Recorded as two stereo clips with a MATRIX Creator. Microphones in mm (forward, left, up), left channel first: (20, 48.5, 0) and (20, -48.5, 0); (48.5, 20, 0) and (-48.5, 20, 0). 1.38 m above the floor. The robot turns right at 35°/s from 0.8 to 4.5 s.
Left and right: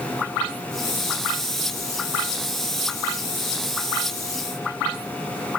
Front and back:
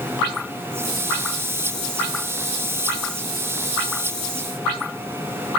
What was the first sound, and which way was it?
Only background noise.